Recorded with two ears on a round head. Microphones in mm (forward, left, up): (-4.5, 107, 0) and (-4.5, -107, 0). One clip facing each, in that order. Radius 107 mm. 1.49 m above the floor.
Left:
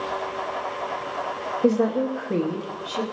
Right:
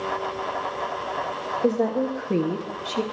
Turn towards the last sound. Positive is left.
turn(degrees=-35)  # may be behind; listen again after turning